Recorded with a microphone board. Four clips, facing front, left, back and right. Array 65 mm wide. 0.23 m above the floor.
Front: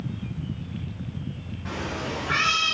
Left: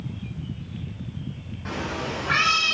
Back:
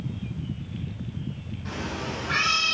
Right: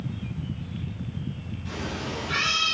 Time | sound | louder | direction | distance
1.6 | a cat meowing | left 4 dB, front 2 dB | 70° left | 3.5 m